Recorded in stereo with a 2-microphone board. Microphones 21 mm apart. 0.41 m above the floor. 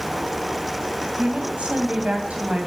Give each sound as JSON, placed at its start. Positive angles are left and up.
{"t": 1.2, "sound": "a woman speaking", "side_deg": -65, "distance_m": 3.0}